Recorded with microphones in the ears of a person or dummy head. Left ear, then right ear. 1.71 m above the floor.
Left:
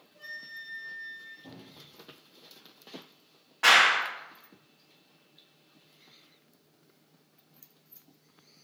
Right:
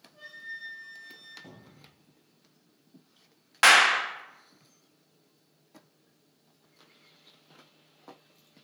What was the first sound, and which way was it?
A flute, 50° right (ahead or behind).